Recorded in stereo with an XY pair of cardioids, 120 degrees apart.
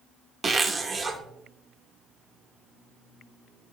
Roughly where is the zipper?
Ahead.